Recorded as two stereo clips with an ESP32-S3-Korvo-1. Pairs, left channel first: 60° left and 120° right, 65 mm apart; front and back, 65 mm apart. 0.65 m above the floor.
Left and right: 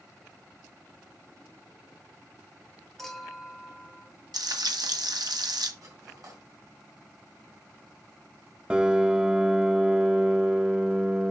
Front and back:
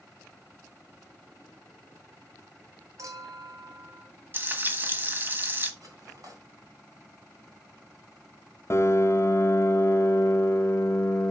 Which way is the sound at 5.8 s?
145° right.